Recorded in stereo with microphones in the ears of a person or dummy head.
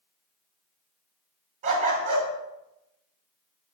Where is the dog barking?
40° right (ahead or behind), 2.5 m.